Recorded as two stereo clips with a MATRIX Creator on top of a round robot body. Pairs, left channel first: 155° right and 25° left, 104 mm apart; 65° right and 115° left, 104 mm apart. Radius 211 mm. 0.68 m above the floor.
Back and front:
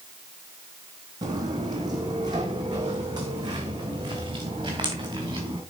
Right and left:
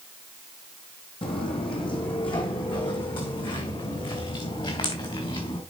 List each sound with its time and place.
1.2 s footsteps: 30° right, 1.7 m; by 5.6 s 25° right, 4.5 m